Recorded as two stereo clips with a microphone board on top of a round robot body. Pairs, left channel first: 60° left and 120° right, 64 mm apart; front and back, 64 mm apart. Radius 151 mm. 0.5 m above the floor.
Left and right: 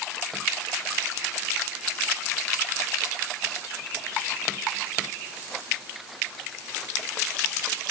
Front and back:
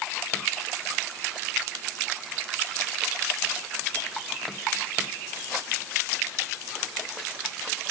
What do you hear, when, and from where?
Only background noise.